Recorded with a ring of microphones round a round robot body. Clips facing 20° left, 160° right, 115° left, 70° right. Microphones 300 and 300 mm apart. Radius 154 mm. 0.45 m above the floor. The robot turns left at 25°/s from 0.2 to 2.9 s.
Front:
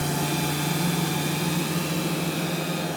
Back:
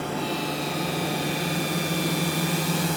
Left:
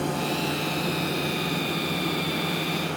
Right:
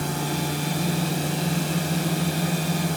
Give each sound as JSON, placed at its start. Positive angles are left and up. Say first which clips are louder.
{"t": 0.0, "sound": "a drone", "louder": "front 1 dB, left 1 dB", "azimuth_deg": -20}